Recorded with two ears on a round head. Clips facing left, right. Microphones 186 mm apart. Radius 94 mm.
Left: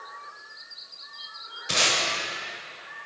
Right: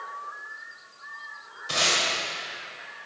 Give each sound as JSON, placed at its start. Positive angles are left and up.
{"t": 1.7, "sound": "tape being pulled", "side_deg": 25, "distance_m": 1.7}